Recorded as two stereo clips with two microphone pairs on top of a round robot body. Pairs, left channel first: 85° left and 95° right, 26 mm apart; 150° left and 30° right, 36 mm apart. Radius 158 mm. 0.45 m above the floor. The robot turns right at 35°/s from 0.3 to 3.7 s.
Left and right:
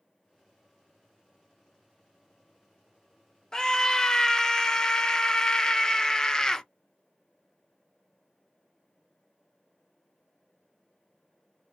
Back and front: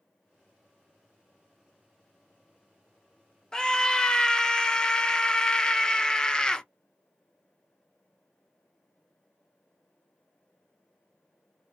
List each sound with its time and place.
3.5 s a scream: 70° left, 0.8 m; by 6.7 s 80° left, 0.8 m